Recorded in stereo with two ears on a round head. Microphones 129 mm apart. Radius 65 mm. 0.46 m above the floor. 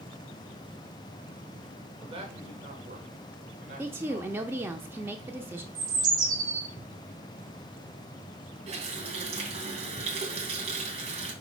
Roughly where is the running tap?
Right.